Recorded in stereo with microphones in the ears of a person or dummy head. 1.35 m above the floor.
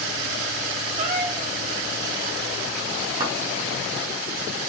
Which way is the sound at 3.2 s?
25° right (ahead or behind).